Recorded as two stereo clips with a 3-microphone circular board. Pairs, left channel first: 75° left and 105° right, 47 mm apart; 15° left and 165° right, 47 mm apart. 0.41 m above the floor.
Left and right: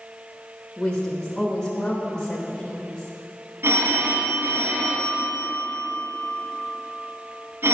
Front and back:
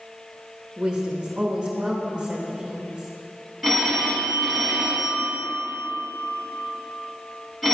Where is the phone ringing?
75° right, 1.9 m.